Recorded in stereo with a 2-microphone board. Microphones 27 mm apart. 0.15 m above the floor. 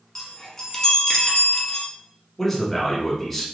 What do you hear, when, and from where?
0.1 s a chime: 15° left (ahead or behind), 1.1 m
2.4 s a man speaking: 5° left (ahead or behind), 1.3 m